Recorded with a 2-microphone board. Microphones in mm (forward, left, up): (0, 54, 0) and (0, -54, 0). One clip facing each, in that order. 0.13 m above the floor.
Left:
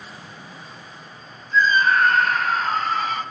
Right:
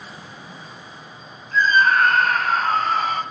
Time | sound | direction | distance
1.5 | a scream | 55° right (ahead or behind) | 3.5 m